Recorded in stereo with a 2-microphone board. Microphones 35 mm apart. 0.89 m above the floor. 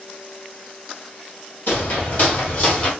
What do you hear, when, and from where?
1.7 s footsteps: 55° left (ahead or behind), 1.5 m; by 2.9 s 25° left (ahead or behind), 1.4 m